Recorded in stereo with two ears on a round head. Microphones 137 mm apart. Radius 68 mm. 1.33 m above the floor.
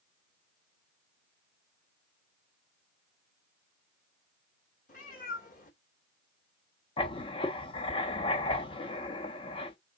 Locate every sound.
4.9 s a cat meowing: 60° left (ahead or behind), 2.5 m
7.0 s writing: 35° left (ahead or behind), 0.9 m